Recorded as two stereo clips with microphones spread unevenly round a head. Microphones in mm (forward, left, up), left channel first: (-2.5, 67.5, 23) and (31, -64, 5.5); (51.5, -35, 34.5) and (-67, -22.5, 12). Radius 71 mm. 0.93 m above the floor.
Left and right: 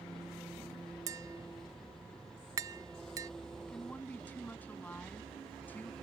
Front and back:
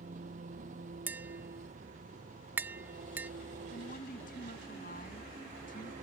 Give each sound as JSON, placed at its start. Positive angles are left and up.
{"t": 0.0, "sound": "an engine running", "azimuth_deg": -170}
{"t": 1.1, "sound": "tapping", "azimuth_deg": -125}
{"t": 3.7, "sound": "a woman speaking", "azimuth_deg": 25}